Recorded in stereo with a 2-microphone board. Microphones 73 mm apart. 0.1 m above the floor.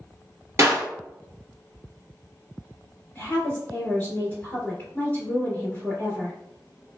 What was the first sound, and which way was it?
A clap, 35° right (ahead or behind).